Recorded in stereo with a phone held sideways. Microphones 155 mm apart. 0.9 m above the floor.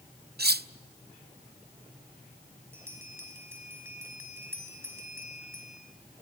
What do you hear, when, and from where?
0.4 s cutlery clinking: 75° right (ahead or behind), 0.6 m
2.7 s a bell: 15° right (ahead or behind), 4.5 m